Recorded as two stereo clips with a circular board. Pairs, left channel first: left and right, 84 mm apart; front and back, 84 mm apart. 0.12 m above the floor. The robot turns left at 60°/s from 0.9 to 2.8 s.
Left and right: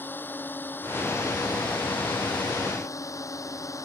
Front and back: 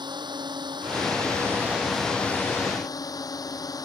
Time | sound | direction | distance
0.0 | a drone | 155° left | ?